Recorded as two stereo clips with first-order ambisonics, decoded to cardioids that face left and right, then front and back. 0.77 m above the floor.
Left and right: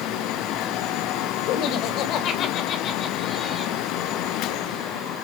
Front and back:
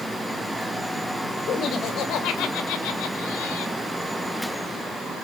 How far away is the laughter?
About 2.5 m.